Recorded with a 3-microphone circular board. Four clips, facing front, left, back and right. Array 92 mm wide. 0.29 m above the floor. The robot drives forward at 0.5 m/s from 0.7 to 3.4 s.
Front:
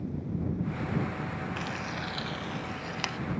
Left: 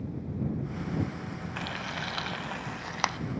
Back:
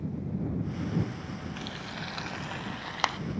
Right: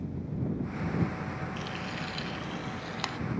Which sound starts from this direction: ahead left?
Frying, at 1.6 s.